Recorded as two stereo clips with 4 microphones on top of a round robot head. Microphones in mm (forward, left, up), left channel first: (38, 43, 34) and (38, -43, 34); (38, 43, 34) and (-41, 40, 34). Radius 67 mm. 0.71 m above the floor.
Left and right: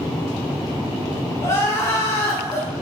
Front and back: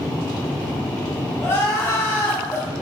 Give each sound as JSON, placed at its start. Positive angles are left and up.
{"t": 1.4, "sound": "crying", "azimuth_deg": 45, "distance_m": 1.0}